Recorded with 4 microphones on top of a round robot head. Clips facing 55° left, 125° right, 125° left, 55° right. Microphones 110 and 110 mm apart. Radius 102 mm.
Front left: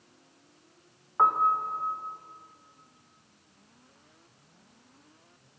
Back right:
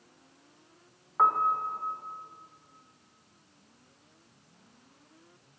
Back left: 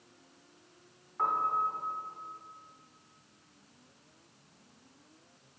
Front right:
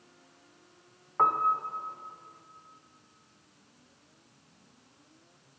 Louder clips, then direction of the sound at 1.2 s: Front left 1 dB, front right 4 dB; 25° right.